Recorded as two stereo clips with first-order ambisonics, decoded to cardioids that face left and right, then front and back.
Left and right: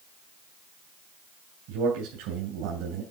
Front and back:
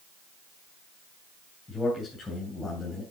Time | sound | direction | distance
1.7 | a man speaking | 75° right | 3 m